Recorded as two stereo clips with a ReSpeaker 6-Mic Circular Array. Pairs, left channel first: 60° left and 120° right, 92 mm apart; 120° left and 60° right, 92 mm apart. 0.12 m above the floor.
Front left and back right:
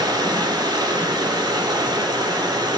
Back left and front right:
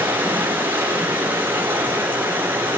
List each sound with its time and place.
0.0 s running water: 115° right, 1.4 m